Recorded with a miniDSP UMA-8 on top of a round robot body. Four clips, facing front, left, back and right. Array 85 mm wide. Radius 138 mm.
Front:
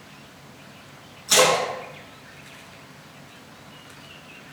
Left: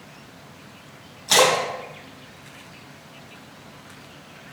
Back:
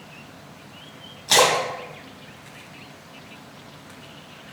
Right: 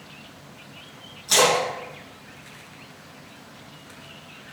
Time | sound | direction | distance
1.3 | a splash | 150° left | 3 m